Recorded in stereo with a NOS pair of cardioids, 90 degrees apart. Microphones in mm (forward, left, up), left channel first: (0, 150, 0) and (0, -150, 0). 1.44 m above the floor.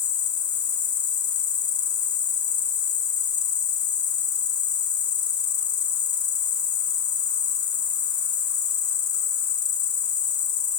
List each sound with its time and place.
0.0 s an insect: 45° left, 1.1 m